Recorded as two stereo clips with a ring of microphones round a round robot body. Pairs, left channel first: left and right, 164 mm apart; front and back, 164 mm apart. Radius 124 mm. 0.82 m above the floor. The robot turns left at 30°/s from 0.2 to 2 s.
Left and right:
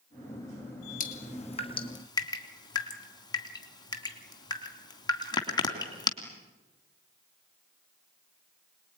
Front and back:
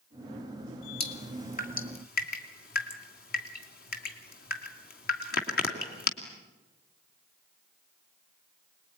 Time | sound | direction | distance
1.0 | dripping | 55° left | 3 m